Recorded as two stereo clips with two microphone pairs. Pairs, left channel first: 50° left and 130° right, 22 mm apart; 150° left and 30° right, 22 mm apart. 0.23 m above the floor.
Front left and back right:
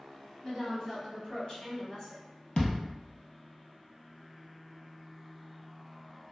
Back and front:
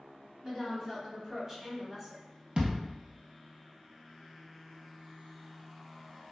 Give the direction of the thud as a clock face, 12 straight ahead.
12 o'clock.